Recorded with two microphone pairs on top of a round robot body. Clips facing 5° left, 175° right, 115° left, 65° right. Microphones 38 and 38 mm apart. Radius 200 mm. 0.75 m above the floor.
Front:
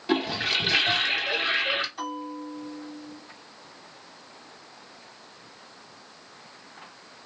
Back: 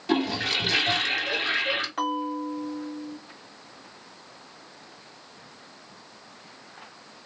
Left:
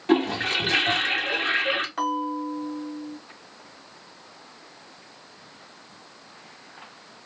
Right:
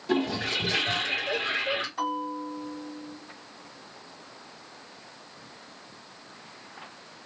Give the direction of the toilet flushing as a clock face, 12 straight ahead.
9 o'clock.